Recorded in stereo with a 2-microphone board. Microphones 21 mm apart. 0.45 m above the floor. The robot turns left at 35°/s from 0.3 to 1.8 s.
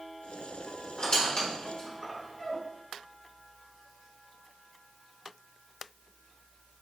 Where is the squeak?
50° left (ahead or behind), 1.1 m; by 2.6 s 60° left (ahead or behind), 1.1 m.